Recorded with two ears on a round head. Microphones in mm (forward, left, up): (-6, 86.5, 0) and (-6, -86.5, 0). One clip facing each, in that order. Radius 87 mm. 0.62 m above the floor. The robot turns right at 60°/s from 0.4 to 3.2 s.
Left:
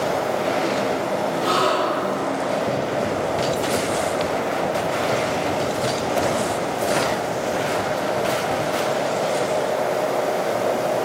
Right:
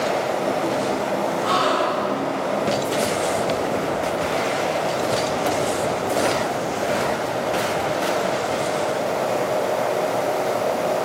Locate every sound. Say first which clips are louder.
1.4 s a gasp: even; 45° left, 1.2 m; by 2.2 s 90° left, 1.2 m